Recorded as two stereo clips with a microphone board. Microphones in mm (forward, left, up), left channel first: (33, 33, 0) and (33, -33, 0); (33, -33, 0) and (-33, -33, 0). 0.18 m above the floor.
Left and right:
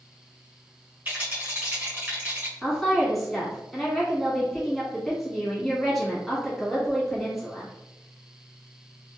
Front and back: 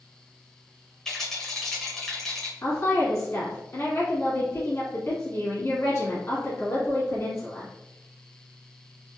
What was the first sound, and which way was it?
A rattle, 70° right.